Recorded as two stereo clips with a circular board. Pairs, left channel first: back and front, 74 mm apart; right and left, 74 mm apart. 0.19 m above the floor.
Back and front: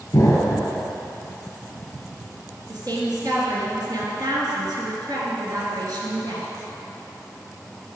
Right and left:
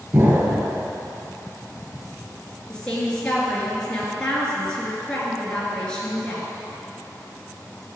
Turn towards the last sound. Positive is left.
turn(degrees=-15)